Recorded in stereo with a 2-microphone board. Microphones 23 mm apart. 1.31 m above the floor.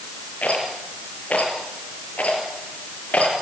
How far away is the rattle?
About 6 m.